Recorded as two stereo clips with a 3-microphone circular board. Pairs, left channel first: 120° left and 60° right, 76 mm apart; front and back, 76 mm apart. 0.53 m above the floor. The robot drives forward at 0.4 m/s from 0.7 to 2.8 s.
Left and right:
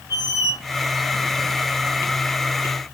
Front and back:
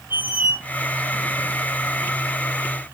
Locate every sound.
0.1 s a squeak: 120° left, 0.6 m